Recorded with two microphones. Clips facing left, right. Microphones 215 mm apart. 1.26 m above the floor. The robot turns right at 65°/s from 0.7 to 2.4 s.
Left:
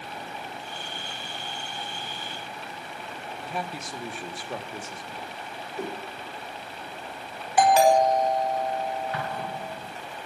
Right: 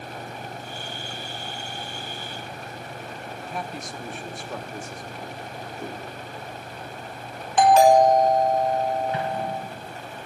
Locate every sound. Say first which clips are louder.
3.4 s a man speaking: even; 5° left (ahead or behind), 1.5 m
5.8 s a whoosh: left 4 dB; 70° left (ahead or behind), 3.5 m
7.6 s a doorbell: right 4 dB; 10° left (ahead or behind), 4.5 m
9.1 s an explosion: right 5 dB; 20° right (ahead or behind), 1.3 m